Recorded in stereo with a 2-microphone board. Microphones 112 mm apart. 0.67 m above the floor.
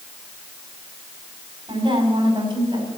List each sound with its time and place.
1.7 s a woman speaking: 55° right (ahead or behind), 5 m; by 2.9 s 45° right (ahead or behind), 4.5 m